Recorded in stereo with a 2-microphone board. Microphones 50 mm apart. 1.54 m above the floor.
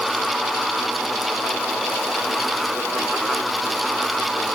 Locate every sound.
Only background noise.